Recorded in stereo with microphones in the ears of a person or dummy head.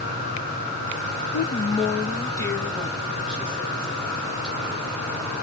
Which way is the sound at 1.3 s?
55° left (ahead or behind).